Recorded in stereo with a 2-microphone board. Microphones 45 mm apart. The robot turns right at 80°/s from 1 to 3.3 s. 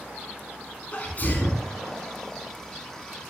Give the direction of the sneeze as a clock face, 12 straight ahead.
11 o'clock.